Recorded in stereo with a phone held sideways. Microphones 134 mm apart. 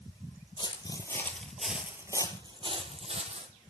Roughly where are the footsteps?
Left.